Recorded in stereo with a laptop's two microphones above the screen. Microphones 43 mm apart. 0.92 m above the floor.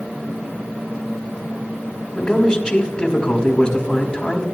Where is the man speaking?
15° left (ahead or behind), 1.6 m.